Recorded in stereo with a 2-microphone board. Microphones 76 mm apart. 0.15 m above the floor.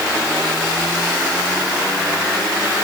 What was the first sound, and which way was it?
Only background noise.